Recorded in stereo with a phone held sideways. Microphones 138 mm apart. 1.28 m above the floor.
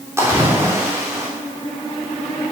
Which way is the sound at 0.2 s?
20° right (ahead or behind).